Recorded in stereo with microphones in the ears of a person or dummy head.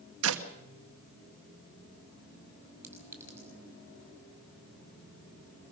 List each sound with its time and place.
0.2 s a clap: 80° right, 1.6 m
2.8 s a clink: 15° right (ahead or behind), 5 m